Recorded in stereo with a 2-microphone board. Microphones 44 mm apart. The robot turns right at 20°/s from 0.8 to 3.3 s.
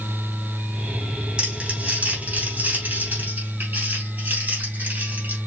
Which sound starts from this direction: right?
Crumpling, at 1.4 s.